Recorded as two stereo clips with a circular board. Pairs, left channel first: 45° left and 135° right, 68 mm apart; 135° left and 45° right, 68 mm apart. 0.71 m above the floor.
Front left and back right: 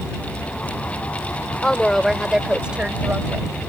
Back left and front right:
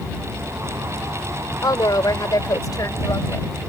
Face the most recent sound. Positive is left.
turn(degrees=165)